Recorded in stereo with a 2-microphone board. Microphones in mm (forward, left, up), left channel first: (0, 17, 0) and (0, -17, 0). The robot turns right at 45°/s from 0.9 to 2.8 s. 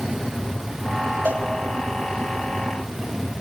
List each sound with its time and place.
1.2 s a cowbell: 75° right (ahead or behind), 6 m; by 1.4 s 70° right (ahead or behind), 6 m